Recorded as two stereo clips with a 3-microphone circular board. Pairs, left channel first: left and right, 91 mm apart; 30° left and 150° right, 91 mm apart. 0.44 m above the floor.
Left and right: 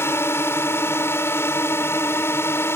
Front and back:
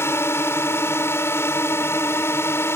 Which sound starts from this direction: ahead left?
A drone, at 0.0 s.